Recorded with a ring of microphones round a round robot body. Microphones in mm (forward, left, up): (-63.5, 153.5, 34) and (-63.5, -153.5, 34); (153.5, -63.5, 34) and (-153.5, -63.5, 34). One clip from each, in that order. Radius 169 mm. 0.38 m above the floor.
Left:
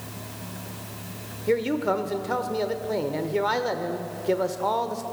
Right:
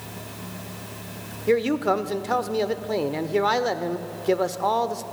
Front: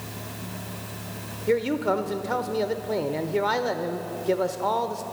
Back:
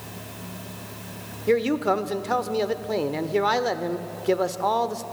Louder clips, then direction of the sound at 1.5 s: Right 3 dB, back 2 dB; 135° right.